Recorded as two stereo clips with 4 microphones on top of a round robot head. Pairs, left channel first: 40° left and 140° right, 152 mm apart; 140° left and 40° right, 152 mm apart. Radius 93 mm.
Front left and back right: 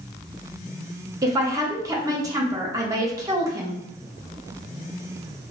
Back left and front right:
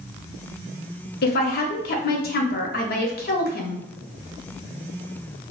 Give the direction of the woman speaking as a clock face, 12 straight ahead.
7 o'clock.